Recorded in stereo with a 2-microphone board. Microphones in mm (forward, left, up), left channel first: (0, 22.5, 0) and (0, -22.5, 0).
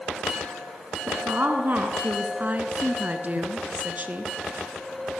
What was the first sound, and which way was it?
A woman speaking, 50° right (ahead or behind).